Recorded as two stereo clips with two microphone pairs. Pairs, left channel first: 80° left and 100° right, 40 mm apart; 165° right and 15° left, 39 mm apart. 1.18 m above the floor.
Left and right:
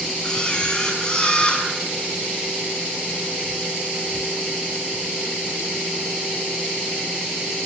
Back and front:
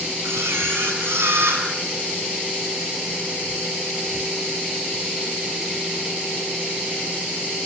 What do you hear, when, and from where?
0.2 s a camera shutter: 10° left, 7 m